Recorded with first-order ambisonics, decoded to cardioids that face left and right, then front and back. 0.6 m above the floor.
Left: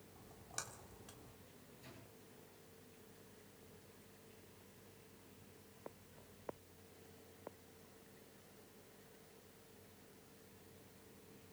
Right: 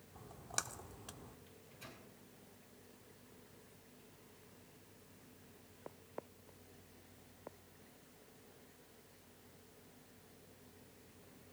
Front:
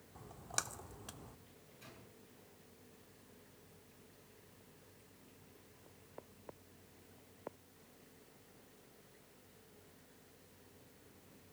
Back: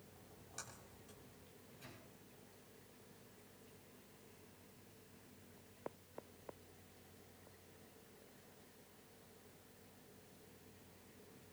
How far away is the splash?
About 0.8 m.